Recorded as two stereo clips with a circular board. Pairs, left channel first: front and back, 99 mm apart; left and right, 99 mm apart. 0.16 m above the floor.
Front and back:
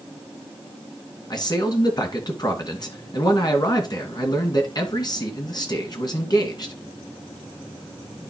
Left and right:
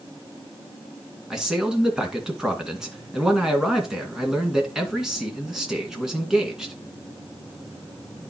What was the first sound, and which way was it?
A man speaking, 5° right.